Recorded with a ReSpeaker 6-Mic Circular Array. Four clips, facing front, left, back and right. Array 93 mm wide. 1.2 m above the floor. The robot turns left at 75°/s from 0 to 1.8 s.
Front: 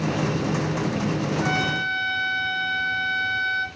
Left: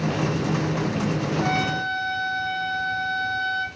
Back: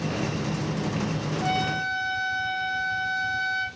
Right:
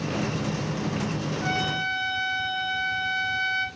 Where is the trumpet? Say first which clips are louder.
Left 2 dB, front 2 dB; 55° left, 3.5 m; by 3.6 s 25° left, 3.5 m.